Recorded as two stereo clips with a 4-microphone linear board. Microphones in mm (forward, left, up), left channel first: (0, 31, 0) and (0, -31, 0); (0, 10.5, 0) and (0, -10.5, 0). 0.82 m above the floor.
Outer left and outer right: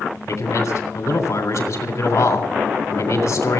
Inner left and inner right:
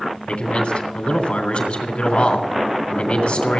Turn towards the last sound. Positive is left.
turn(degrees=65)  # may be behind; listen again after turning